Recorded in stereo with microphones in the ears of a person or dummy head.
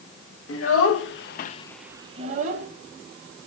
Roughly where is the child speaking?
Left.